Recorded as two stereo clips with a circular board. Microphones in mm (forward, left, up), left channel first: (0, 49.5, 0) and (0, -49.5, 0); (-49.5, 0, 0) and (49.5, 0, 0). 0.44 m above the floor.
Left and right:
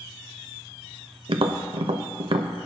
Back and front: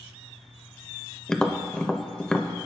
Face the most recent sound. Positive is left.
turn(degrees=-100)